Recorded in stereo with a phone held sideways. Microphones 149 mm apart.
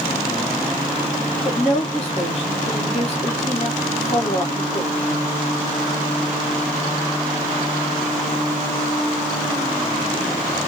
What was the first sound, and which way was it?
A woman speaking, 45° left (ahead or behind).